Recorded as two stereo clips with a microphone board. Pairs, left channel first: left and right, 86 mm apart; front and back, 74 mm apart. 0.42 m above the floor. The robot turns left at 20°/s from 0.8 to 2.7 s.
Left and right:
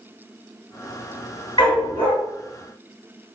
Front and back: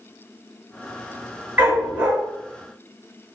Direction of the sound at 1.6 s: 110° left.